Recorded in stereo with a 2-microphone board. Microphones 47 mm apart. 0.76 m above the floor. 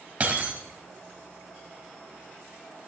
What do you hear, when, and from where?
0.2 s breaking glass: 35° right (ahead or behind), 1.9 m